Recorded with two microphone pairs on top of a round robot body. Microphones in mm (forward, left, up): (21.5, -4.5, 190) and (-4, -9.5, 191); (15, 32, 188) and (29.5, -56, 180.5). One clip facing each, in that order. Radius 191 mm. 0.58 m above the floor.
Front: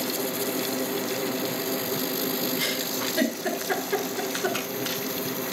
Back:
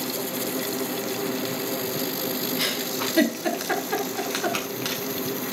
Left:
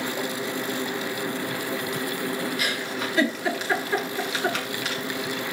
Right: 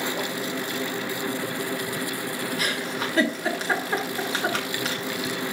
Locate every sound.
2.6 s a giggle: 130° right, 7 m